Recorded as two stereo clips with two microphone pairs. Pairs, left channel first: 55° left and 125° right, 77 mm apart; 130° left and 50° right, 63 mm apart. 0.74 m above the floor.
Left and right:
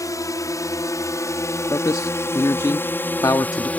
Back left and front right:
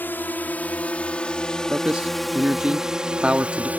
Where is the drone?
80° left; by 3.8 s straight ahead.